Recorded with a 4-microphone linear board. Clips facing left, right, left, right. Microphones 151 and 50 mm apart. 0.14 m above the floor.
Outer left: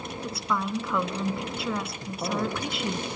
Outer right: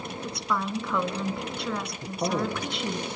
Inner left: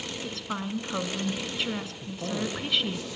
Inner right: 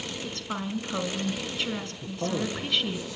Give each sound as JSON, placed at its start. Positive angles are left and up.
{"t": 0.2, "sound": "a woman speaking", "side_deg": 5, "distance_m": 1.7}
{"t": 2.0, "sound": "a man speaking", "side_deg": -15, "distance_m": 6.5}